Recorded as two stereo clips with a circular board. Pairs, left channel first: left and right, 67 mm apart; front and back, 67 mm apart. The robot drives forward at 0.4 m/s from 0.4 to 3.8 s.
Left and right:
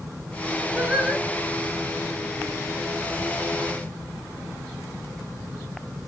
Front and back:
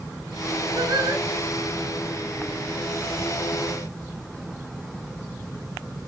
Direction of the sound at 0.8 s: 155° right.